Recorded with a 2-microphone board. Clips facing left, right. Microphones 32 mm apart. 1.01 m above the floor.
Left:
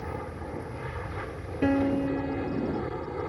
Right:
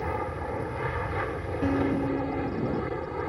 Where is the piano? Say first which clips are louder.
Left 2 dB; 35° left (ahead or behind).